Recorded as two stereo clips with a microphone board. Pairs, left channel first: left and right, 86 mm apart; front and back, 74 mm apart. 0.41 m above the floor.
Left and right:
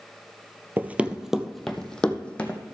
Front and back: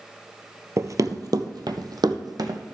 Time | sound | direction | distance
0.8 | running footsteps | 150° right | 0.6 m